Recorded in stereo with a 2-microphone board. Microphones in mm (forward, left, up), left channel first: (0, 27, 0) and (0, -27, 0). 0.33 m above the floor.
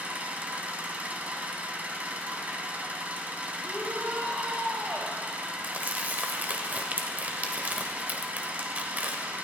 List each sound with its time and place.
0.0 s an engine running: 25° right (ahead or behind), 1.2 m
3.6 s a shout: 35° right (ahead or behind), 1.6 m
5.6 s crumpling: 30° right (ahead or behind), 1.0 m